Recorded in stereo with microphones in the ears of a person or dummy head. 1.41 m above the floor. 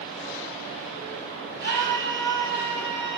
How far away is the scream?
About 6.5 m.